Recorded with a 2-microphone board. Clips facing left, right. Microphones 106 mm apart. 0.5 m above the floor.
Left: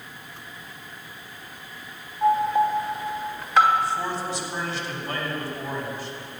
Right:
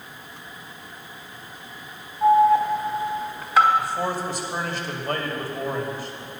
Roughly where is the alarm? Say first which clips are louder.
Right 4 dB; centre.